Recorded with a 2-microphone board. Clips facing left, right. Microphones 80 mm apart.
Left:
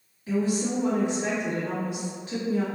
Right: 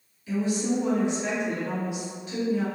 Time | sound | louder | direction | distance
0.3 | a woman speaking | even | 45° left (ahead or behind) | 1.3 m